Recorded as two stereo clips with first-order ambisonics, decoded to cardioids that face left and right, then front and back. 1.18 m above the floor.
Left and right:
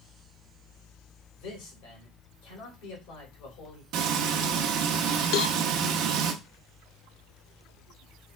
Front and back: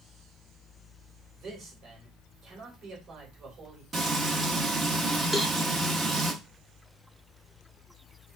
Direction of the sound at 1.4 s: 120° left.